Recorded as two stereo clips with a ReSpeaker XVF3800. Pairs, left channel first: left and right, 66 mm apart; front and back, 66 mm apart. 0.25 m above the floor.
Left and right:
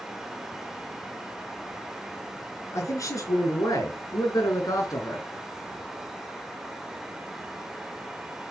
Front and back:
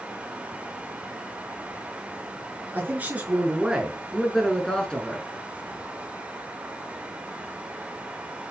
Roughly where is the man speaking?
Behind left.